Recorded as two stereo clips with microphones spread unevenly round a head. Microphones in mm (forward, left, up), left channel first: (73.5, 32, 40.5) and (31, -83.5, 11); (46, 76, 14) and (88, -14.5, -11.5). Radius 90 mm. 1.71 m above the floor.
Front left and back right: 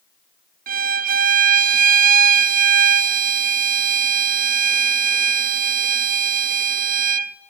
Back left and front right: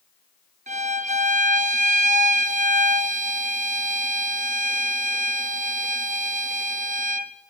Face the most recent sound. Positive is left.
turn(degrees=-105)